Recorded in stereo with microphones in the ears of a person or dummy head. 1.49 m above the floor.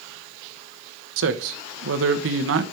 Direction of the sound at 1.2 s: 70° right (ahead or behind).